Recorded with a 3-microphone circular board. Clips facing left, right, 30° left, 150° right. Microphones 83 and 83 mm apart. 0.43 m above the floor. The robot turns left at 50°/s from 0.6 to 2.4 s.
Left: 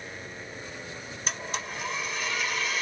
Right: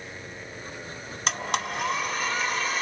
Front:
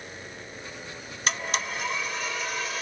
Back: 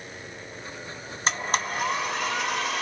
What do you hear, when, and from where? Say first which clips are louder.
1.3 s a blender: right 7 dB, back 3 dB; 85° right, 1.0 m; by 2.8 s 145° right, 1.0 m